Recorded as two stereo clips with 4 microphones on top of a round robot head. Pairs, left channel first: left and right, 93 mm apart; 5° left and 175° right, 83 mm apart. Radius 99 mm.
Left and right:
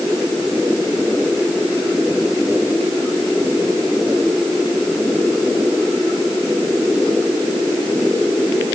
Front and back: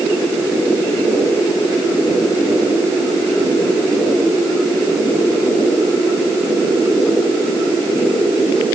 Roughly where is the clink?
No clink in this recording.